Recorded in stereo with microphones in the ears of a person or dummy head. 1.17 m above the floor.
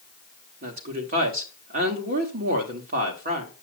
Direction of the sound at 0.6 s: 45° right (ahead or behind).